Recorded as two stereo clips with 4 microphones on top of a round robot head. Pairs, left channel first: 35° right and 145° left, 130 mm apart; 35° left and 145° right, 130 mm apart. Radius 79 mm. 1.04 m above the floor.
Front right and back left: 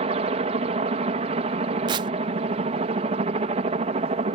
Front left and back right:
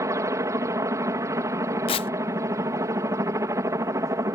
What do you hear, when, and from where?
0.0 s a helicopter: 155° left
1.9 s tearing paper: 85° left